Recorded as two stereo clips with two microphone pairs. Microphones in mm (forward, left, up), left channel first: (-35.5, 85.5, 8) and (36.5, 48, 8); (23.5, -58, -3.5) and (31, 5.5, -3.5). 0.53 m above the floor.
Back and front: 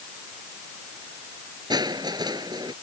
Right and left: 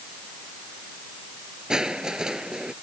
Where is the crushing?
5° left.